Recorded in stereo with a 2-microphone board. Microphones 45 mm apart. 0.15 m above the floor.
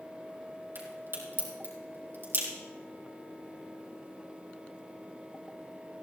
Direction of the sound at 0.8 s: 60° right (ahead or behind).